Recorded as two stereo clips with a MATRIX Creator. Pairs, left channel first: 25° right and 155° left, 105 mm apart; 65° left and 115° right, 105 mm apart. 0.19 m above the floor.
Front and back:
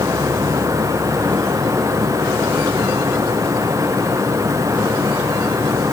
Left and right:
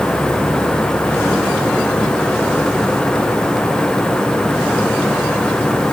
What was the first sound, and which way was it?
Only background noise.